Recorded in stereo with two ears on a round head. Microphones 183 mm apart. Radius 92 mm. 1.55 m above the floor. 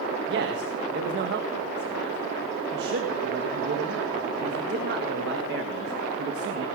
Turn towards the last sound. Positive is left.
turn(degrees=-55)  # may be behind; listen again after turning